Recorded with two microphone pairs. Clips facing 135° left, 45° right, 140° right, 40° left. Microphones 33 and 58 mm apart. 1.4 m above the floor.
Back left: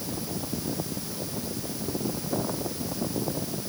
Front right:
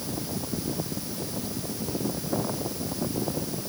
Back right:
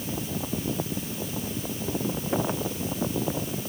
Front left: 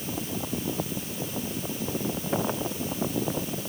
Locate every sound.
Only background noise.